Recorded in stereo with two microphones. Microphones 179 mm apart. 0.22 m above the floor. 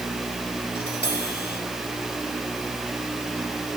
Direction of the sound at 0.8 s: 75° left (ahead or behind).